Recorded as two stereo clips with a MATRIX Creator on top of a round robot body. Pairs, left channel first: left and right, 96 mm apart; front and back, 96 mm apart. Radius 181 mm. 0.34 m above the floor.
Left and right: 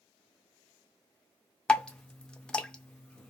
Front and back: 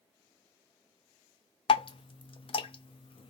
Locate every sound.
1.7 s dripping: 10° left, 0.6 m